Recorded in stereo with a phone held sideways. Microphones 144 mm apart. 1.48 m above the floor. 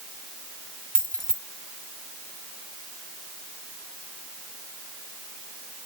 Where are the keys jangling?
70° right (ahead or behind), 1.9 m.